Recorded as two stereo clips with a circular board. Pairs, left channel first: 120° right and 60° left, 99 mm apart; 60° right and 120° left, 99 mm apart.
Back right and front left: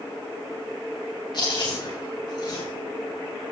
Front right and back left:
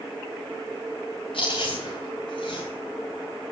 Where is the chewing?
80° right, 7.5 m.